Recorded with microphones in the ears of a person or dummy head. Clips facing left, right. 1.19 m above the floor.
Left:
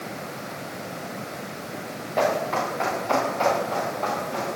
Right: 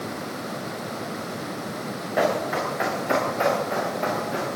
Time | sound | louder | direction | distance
2.2 | running footsteps | even | 25° right (ahead or behind) | 8 m